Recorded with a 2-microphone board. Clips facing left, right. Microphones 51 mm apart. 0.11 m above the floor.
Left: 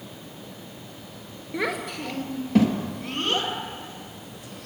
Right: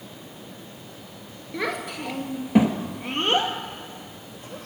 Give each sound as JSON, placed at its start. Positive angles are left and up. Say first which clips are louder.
{"t": 1.5, "sound": "a child speaking", "louder": "left 1 dB", "side_deg": 10, "distance_m": 1.2}